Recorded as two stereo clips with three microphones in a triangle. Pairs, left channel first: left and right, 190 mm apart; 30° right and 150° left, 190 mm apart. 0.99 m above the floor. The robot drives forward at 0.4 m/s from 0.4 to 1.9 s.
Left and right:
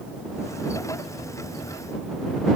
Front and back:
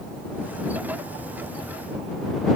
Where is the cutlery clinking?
No cutlery clinking in this recording.